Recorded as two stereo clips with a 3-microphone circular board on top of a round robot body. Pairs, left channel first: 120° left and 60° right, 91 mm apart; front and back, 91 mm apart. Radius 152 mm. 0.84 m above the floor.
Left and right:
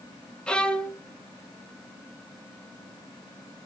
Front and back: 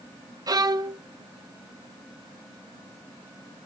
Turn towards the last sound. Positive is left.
turn(degrees=-165)